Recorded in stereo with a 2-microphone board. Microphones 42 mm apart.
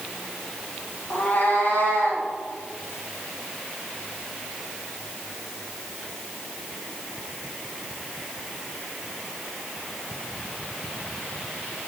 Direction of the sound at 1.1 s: 50° left (ahead or behind).